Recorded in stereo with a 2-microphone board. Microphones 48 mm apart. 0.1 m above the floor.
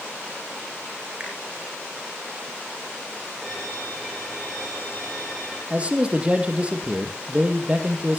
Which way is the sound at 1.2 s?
25° right (ahead or behind).